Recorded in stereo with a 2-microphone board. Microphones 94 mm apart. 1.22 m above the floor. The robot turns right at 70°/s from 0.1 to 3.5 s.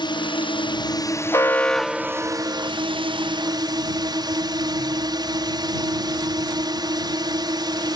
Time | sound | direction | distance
0.0 | a drone | 65° left | ?
1.3 | an alarm | 140° left | ?